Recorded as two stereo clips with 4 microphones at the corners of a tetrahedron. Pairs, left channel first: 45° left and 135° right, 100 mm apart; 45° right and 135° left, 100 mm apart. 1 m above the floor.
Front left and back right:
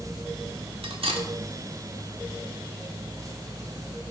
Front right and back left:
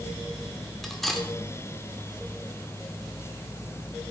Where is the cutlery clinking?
135° right, 1.7 m.